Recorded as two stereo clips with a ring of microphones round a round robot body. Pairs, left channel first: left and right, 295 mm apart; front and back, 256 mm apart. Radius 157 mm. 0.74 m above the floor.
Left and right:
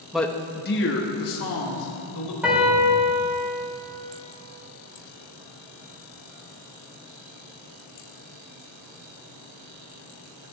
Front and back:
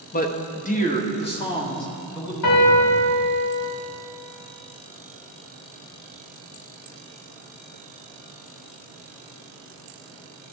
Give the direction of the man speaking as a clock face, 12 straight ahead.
12 o'clock.